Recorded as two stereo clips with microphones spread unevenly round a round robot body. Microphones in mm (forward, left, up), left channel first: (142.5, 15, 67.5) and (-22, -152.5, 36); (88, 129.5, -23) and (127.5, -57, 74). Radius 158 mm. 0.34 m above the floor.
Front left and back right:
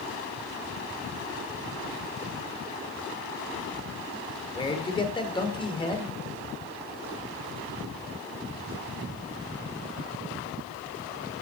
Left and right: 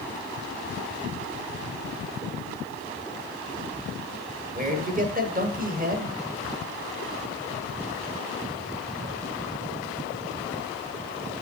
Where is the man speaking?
20° right, 1.5 m.